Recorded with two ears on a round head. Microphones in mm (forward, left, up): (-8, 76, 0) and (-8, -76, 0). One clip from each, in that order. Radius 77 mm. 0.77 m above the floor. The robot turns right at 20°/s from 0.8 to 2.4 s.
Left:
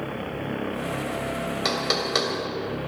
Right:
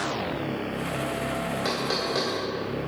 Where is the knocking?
40° left (ahead or behind), 2.5 m; by 2.3 s 50° left (ahead or behind), 2.5 m.